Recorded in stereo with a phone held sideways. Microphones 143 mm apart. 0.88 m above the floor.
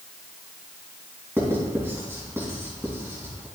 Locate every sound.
1.4 s writing: 15° right (ahead or behind), 3 m